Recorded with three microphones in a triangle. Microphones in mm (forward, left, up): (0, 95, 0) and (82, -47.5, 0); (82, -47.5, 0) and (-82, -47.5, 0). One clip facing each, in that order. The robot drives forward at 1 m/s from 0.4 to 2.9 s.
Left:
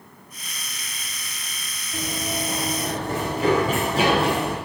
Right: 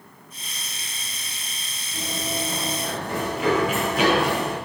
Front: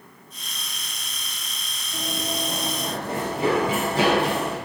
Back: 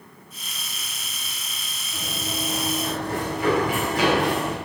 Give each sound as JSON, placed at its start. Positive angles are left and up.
{"t": 1.9, "sound": "running footsteps", "azimuth_deg": 70, "distance_m": 8.0}